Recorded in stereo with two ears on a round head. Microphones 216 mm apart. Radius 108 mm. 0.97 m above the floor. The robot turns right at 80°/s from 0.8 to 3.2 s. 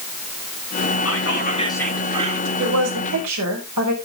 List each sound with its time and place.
1.1 s whispering: 110° left, 2 m; by 2.5 s 135° right, 2 m
2.6 s a woman speaking: 125° right, 5 m; by 3.9 s 75° right, 5 m